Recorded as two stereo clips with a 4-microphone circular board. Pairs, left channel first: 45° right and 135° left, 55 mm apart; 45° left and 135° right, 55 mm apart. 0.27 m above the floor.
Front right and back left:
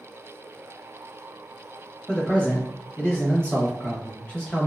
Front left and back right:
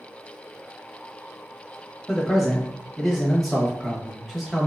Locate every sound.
2.1 s a man speaking: 55° right, 1.0 m